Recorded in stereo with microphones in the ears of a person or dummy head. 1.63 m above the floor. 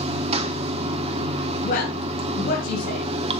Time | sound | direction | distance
0.0 | running water | 35° right (ahead or behind) | 1.1 m
1.6 | a woman speaking | 50° left (ahead or behind) | 6 m